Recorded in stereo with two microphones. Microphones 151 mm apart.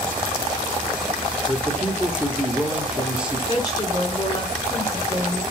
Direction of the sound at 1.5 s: 5° right (ahead or behind).